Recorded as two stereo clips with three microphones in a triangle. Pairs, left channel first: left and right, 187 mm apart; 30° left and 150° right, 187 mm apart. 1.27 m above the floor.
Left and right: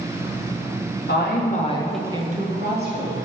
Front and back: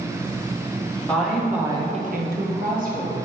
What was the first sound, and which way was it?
A woman speaking, 115° left.